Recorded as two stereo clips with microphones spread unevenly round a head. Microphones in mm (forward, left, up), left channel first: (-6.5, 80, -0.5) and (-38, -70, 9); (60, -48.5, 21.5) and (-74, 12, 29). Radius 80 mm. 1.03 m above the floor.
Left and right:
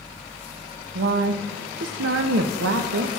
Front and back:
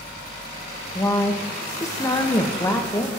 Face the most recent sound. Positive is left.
turn(degrees=-95)